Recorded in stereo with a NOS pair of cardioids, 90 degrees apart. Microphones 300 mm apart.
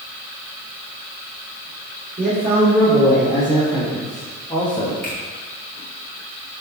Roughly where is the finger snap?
Ahead right.